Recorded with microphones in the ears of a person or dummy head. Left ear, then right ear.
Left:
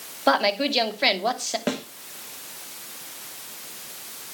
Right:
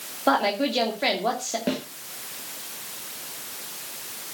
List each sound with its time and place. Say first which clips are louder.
0.3 s a woman speaking: left 1 dB; 25° left (ahead or behind), 2.5 m
1.7 s a snare drum: even; 50° left (ahead or behind), 2 m